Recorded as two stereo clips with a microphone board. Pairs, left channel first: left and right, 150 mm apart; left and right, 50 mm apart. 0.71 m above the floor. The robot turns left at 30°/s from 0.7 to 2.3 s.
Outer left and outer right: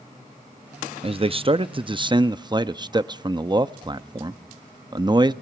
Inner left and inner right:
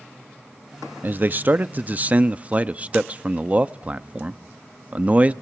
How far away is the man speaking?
About 0.5 m.